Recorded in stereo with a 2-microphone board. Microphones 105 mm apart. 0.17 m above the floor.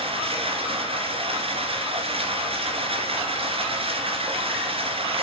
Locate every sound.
0.0 s running water: 60° right (ahead or behind), 2.5 m